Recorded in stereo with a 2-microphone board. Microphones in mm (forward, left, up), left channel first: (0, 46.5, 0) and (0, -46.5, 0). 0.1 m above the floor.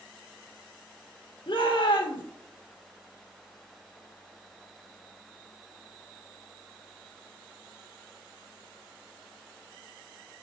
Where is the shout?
60° left (ahead or behind), 2.5 m.